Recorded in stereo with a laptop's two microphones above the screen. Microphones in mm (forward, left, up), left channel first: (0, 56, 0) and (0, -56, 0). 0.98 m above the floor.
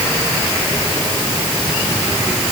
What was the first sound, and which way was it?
Only background noise.